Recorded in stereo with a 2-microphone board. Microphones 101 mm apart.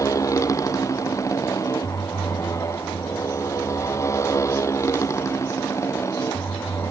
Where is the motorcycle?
30° left (ahead or behind); by 6.9 s 25° left (ahead or behind).